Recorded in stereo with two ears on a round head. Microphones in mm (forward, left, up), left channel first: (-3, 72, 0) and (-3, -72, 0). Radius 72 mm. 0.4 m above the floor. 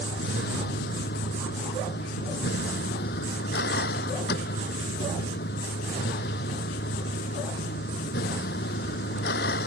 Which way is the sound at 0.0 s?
65° left (ahead or behind).